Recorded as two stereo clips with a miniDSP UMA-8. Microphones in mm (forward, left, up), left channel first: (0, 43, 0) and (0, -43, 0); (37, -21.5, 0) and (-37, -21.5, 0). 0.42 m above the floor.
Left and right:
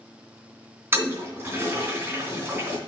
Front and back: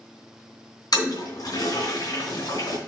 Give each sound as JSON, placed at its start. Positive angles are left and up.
{"t": 0.9, "sound": "a toilet flushing", "azimuth_deg": -25, "distance_m": 2.5}